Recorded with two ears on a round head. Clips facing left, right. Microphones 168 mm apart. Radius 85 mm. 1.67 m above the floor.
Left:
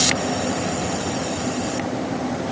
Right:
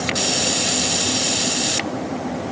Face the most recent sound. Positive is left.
No sound to turn to.